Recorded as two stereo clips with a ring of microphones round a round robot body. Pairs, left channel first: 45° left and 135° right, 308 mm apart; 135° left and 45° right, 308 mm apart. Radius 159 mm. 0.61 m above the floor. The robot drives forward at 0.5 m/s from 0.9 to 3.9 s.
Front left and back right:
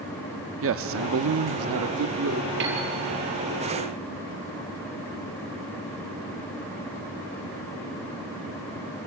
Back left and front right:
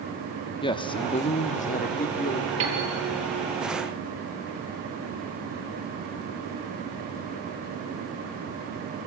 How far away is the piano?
About 5 m.